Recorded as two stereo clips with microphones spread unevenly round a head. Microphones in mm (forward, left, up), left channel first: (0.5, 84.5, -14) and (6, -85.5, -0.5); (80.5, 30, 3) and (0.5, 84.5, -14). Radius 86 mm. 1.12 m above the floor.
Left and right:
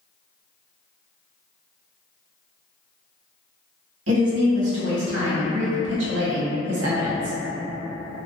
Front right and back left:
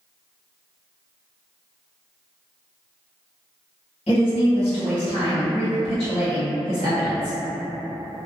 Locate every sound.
4.1 s a woman speaking: 85° right, 0.9 m